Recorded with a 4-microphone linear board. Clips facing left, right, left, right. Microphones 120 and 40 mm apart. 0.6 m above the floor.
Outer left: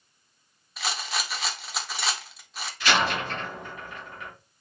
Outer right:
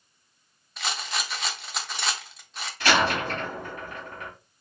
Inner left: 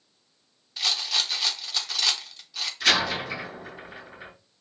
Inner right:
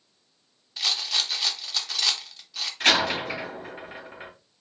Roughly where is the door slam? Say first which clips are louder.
Outer right 2 dB, inner right 1 dB; right.